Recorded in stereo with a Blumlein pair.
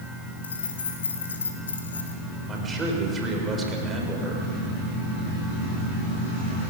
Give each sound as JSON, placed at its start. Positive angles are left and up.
{"t": 0.4, "sound": "keys jangling", "azimuth_deg": 65, "distance_m": 3.0}
{"t": 2.5, "sound": "a man speaking", "azimuth_deg": -20, "distance_m": 5.0}